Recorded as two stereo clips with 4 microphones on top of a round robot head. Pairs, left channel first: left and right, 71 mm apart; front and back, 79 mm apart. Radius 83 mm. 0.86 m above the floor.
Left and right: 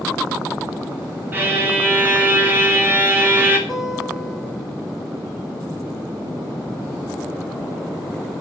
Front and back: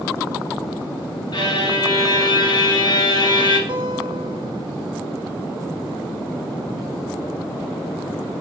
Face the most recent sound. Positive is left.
turn(degrees=-175)